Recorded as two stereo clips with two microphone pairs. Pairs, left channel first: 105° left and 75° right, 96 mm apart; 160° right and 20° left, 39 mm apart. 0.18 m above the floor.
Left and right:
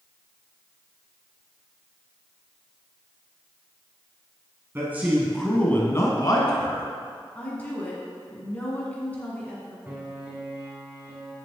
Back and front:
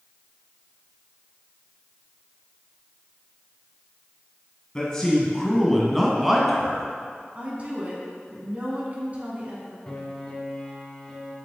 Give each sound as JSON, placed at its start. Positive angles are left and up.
{"t": 4.8, "sound": "a man speaking", "azimuth_deg": -110, "distance_m": 1.3}
{"t": 7.3, "sound": "a woman speaking", "azimuth_deg": 45, "distance_m": 1.8}
{"t": 9.9, "sound": "a piano", "azimuth_deg": -125, "distance_m": 1.4}